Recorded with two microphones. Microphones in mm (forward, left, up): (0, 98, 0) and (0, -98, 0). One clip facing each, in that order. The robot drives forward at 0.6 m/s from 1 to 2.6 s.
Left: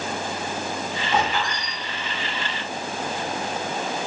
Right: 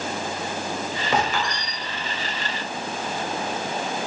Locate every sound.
1.1 s a squeak: 80° right, 1.0 m; by 1.7 s 65° right (ahead or behind), 1.1 m